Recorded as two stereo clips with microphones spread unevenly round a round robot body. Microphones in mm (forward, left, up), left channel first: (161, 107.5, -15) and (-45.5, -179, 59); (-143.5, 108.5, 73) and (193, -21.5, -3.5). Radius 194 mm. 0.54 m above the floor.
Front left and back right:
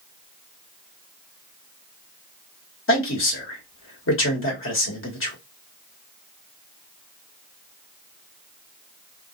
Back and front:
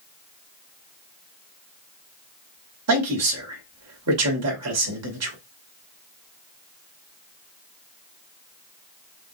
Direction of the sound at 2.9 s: 10° left.